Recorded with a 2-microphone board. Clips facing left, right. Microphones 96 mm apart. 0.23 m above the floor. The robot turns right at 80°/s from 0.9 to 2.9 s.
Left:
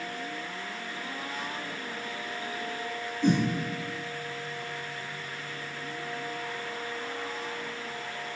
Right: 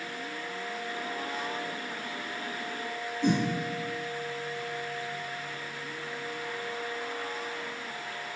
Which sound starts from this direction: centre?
A whoosh, at 3.2 s.